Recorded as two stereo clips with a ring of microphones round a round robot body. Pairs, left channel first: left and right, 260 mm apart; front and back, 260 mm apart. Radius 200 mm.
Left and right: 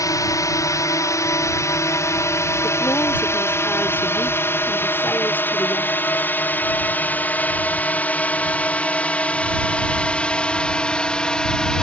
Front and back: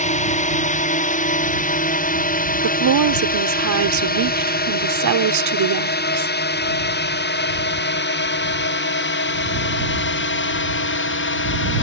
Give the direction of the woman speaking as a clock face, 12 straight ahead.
6 o'clock.